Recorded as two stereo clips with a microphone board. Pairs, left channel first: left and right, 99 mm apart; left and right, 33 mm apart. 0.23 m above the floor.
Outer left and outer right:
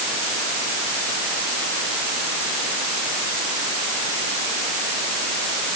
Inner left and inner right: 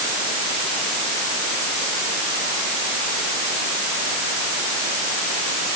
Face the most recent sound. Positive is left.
No sound to turn to.